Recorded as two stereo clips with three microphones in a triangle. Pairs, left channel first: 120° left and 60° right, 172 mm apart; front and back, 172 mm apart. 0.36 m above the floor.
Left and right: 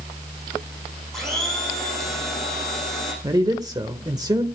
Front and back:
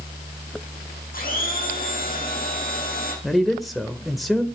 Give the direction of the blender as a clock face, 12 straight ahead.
11 o'clock.